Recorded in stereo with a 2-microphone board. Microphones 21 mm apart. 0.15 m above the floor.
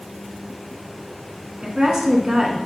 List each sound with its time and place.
1.6 s a woman speaking: 35° right (ahead or behind), 1.4 m